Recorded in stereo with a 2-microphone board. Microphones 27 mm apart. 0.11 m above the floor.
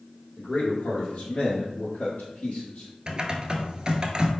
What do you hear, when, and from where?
0.4 s a man speaking: 35° left (ahead or behind), 1.6 m; by 2.9 s 45° left (ahead or behind), 2 m
3.1 s typing on a keyboard: 35° right (ahead or behind), 0.6 m